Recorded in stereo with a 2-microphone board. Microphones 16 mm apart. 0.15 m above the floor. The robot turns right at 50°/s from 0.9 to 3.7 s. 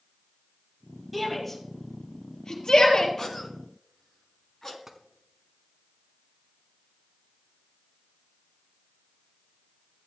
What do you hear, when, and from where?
1.1 s a shout: 5° right (ahead or behind), 3.5 m; by 3.1 s 70° left (ahead or behind), 3.5 m
3.2 s a cough: 35° left (ahead or behind), 1.3 m; by 4.8 s 30° left (ahead or behind), 1.3 m
4.9 s tapping: 20° right (ahead or behind), 1.2 m